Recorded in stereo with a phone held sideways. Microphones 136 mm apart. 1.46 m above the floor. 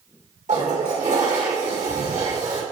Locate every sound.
0.5 s a toilet flushing: 65° right (ahead or behind), 2.5 m